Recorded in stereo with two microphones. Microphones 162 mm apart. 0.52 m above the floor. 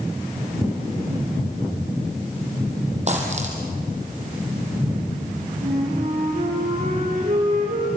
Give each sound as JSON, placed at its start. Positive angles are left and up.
{"t": 3.1, "sound": "a dropped coin", "side_deg": -45, "distance_m": 5.0}
{"t": 5.6, "sound": "a flute", "side_deg": -60, "distance_m": 9.0}